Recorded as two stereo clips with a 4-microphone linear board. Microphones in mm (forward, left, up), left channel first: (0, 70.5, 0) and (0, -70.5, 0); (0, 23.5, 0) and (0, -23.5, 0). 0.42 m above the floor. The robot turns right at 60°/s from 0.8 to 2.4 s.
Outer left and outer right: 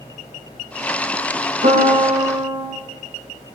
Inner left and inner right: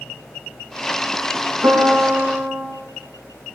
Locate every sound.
1.6 s a piano: 60° right, 9.5 m; by 2.6 s 10° right, 9.5 m